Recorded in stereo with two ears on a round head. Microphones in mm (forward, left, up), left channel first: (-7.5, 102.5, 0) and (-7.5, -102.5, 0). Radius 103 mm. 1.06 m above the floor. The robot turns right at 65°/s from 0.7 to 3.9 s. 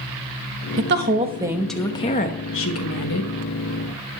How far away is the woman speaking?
About 1.1 m.